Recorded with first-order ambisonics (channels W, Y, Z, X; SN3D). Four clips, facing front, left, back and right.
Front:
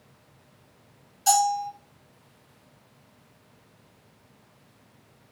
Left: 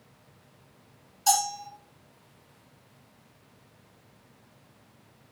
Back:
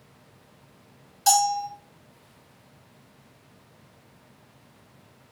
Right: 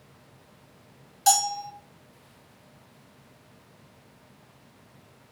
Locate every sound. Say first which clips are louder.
1.3 s a bell: right 3 dB, back 1 dB; 125° right, 2 m